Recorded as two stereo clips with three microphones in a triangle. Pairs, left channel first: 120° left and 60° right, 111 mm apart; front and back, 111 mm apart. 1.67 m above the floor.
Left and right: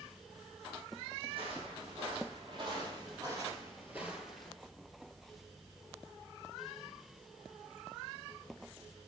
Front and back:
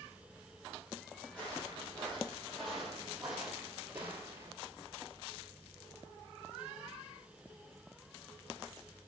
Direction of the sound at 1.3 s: 80° right.